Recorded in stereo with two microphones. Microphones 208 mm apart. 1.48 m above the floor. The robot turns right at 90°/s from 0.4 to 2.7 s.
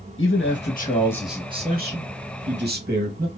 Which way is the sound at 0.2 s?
100° left.